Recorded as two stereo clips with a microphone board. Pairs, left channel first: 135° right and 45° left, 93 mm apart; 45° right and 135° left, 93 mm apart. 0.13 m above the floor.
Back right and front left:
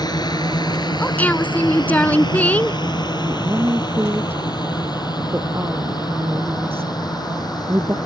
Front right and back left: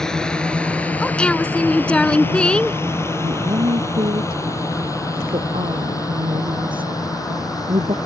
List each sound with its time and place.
0.0 s a drone: 125° right; by 8.1 s 95° right
1.0 s a woman speaking: 100° right
3.2 s a woman speaking: 110° left